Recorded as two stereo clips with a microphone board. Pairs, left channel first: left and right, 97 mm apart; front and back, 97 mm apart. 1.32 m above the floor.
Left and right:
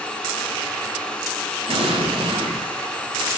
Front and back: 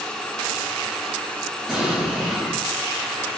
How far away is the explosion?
About 9.5 m.